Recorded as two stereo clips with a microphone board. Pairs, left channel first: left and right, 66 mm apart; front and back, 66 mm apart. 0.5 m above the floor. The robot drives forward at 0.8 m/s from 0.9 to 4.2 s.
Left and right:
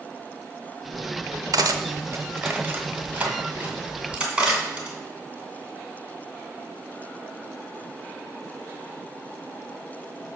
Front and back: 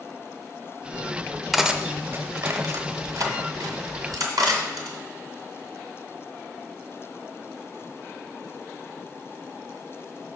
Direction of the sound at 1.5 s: 90° right.